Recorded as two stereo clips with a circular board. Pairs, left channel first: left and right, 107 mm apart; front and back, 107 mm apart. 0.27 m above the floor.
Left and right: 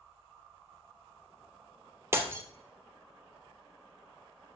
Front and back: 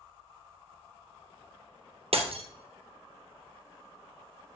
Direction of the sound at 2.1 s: 155° right.